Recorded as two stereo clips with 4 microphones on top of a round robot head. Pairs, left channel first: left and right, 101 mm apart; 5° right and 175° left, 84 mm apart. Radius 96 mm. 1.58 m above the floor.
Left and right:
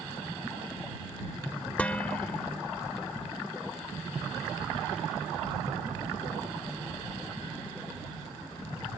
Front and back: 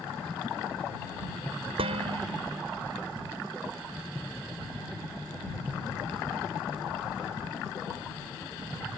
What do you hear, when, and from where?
1.8 s dishes clattering: 165° left